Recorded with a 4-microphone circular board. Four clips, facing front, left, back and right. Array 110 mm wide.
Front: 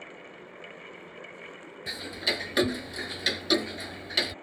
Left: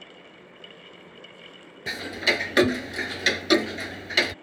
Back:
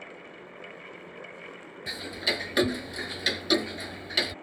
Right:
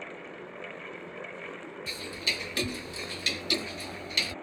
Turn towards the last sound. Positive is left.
turn(degrees=90)